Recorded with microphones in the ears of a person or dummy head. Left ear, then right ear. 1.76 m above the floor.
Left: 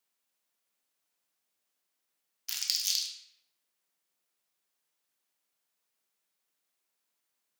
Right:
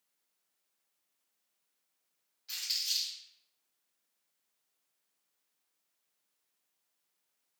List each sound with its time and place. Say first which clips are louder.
2.5 s crumpling: left 2 dB; 75° left (ahead or behind), 0.6 m